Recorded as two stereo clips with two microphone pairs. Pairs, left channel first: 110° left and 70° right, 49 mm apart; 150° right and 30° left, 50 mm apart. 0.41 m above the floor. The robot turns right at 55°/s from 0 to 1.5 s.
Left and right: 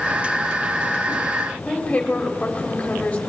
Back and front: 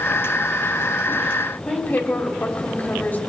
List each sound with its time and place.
1.6 s a woman speaking: 175° left, 1.9 m